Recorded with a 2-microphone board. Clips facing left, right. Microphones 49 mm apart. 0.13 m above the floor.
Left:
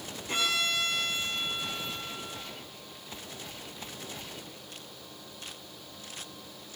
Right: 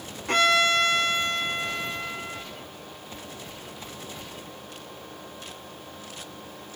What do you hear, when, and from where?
0.3 s a violin: 55° right (ahead or behind), 4.5 m